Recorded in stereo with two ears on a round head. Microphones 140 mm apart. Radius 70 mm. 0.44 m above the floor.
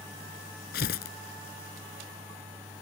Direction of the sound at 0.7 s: 70° left (ahead or behind).